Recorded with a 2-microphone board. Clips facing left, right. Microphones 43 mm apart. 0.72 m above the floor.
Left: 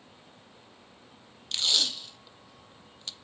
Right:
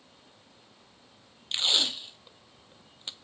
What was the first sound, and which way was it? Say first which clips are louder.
Tape being pulled: right 1 dB; 25° right (ahead or behind).